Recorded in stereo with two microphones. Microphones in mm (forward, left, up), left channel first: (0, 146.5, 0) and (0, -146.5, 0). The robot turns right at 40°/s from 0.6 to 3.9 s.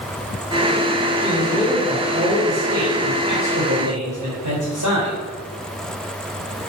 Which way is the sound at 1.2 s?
165° left.